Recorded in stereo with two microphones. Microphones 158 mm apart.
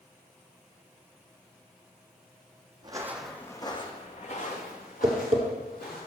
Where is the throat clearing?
I don't hear throat clearing.